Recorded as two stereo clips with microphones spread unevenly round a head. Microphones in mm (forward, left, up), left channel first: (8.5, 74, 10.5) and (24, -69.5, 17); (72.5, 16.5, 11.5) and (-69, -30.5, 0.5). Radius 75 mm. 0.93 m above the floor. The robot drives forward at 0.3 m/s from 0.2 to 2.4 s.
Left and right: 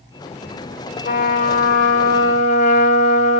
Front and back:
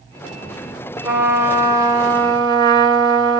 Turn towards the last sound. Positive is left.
turn(degrees=135)